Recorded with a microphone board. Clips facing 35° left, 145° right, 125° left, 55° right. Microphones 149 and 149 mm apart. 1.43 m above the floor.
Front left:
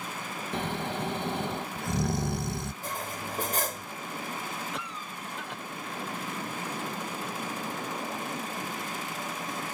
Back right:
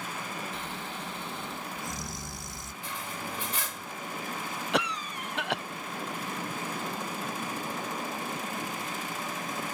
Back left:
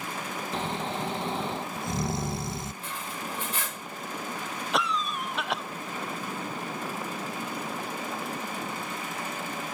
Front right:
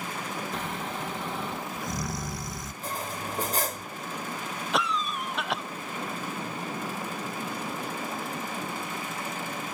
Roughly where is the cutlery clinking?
Ahead.